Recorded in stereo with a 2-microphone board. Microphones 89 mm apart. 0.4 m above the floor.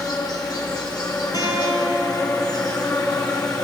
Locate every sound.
0.0 s an insect: 55° left (ahead or behind), 3.5 m
1.3 s a guitar: 55° left (ahead or behind), 6 m